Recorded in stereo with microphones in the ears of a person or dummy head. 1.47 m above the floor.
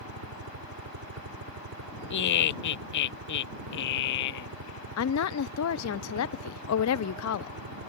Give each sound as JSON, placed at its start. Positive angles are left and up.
{"t": 0.0, "sound": "a helicopter", "side_deg": -75}
{"t": 2.1, "sound": "laughter", "side_deg": 55}
{"t": 5.0, "sound": "a woman speaking", "side_deg": 80}